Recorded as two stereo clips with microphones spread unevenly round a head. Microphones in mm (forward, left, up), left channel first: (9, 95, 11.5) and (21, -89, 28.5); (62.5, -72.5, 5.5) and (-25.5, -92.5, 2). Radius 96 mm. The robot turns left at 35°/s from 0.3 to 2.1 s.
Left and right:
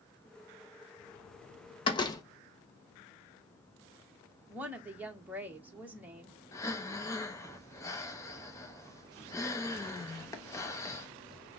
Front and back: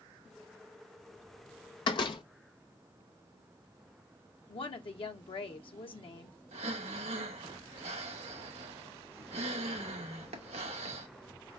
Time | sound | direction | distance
1.9 | a door slam | 30° left | 0.8 m
4.5 | a woman speaking | 5° right | 1.3 m
6.5 | breathing | 170° left | 0.7 m